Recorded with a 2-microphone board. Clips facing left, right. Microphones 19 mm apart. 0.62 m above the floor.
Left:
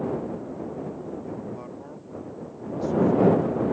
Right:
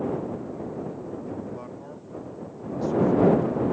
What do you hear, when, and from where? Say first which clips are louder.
1.3 s a man speaking: even; 5° right (ahead or behind)